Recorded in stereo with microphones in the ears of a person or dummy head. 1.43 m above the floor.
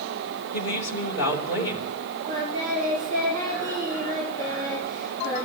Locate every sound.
0.5 s a woman speaking: 65° left (ahead or behind), 5.5 m
2.3 s singing: 20° left (ahead or behind), 8 m